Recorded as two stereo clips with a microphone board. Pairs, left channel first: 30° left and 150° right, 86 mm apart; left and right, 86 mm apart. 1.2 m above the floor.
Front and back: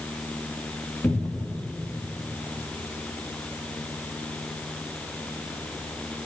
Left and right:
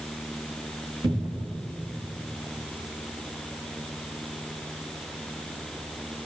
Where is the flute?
No flute in this recording.